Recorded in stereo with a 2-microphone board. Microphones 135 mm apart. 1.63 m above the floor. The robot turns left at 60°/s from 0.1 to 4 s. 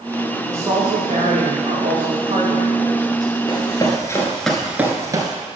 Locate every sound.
0.5 s a woman speaking: 15° right, 3 m; by 3.3 s 175° left, 3 m
3.5 s running footsteps: 30° left (ahead or behind), 2 m; by 5.3 s 35° right (ahead or behind), 1.9 m